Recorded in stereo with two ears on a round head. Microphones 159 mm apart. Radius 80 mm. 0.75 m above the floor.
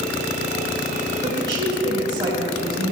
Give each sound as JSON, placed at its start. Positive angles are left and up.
{"t": 1.2, "sound": "a woman speaking", "side_deg": -25, "distance_m": 3.5}